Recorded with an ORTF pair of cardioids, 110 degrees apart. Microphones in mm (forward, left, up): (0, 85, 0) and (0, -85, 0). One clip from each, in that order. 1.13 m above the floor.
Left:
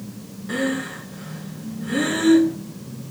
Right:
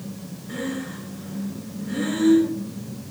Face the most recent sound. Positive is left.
turn(degrees=60)